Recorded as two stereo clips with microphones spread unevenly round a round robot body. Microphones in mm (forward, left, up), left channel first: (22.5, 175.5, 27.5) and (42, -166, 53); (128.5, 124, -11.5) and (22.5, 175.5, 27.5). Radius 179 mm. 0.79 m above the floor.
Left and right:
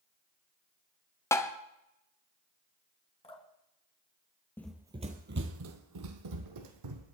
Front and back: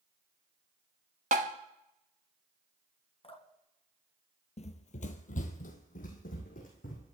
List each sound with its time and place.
1.3 s tapping: 170° left, 0.9 m
3.2 s dripping: 20° left, 3 m
4.6 s running footsteps: 5° left, 1.1 m; by 7.1 s 70° right, 2.5 m